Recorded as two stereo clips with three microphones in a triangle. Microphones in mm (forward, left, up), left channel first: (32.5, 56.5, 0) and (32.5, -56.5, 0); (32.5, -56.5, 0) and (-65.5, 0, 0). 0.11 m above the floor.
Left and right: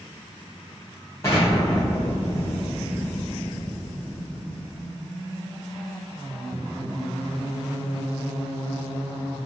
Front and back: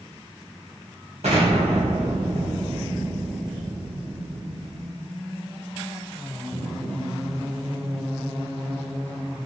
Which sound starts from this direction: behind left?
An explosion, at 1.2 s.